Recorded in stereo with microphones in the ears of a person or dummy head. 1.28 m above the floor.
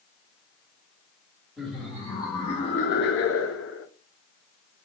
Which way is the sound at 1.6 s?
5° left (ahead or behind).